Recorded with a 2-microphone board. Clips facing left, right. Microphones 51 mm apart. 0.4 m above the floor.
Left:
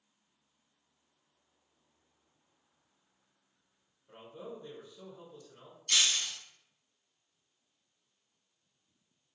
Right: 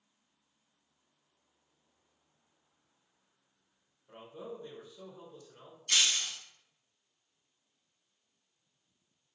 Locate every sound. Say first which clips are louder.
4.1 s a man speaking: right 1 dB; 10° right (ahead or behind), 1.0 m
5.9 s breaking glass: even; 10° right (ahead or behind), 1.1 m